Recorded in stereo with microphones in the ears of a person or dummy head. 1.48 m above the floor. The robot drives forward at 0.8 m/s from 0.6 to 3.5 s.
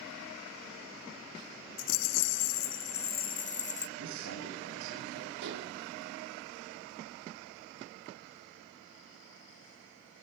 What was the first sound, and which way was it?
A rattle, 65° left (ahead or behind).